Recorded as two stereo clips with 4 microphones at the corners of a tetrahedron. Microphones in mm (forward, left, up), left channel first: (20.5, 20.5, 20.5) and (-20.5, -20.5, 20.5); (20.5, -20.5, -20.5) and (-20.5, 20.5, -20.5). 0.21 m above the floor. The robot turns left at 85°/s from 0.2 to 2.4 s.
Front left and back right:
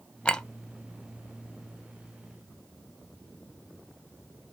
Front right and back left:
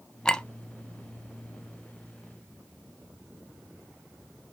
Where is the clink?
5° left, 0.5 m; by 0.4 s 10° right, 0.5 m.